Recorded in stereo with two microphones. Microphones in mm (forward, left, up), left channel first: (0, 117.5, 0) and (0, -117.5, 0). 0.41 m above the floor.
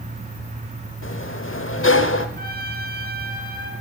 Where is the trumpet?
40° right (ahead or behind), 1.9 m.